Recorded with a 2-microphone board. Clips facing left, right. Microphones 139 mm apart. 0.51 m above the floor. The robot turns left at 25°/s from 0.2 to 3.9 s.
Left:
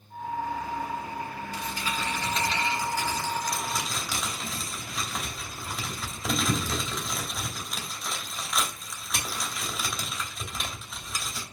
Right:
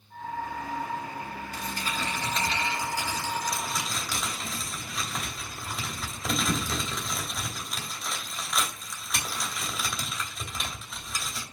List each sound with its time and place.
1.5 s crumpling: 50° right (ahead or behind), 2.5 m; by 11.4 s 5° left (ahead or behind), 2.5 m